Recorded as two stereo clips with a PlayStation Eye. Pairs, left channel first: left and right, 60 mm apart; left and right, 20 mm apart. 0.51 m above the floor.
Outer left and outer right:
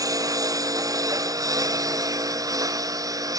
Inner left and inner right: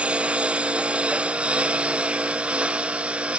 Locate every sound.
0.0 s a lawn mower: 75° right (ahead or behind); by 3.4 s 80° right